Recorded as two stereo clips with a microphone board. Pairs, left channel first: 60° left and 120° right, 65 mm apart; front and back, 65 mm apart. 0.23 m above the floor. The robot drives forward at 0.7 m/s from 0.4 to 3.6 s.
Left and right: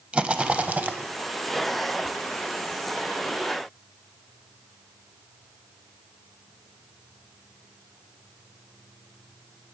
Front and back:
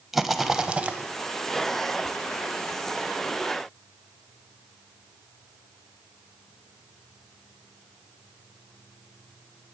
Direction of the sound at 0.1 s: 100° right.